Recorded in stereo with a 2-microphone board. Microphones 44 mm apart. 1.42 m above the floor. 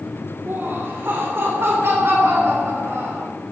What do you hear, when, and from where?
0.5 s laughter: 70° right (ahead or behind), 3.5 m; by 3.3 s 80° right, 5 m